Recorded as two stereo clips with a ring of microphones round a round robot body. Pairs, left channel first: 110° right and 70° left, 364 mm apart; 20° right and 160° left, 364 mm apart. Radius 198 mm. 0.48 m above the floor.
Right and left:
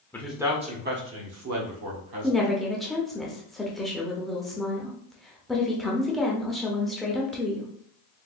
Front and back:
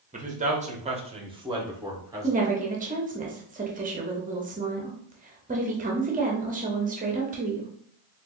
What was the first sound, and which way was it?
A man speaking, 175° left.